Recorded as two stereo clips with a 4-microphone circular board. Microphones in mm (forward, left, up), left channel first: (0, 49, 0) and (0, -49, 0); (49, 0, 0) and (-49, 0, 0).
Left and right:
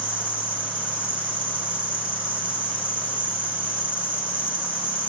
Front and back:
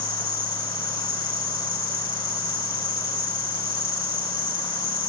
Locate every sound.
0.0 s an insect: 20° right, 5.5 m